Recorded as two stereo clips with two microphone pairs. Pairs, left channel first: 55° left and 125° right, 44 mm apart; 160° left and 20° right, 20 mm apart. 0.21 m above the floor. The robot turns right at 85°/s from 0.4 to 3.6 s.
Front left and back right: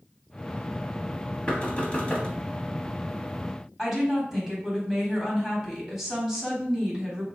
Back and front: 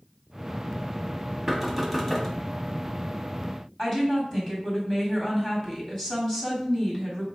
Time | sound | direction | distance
1.5 | knocking | 25° left | 0.7 m
3.8 | a woman speaking | 160° left | 1.3 m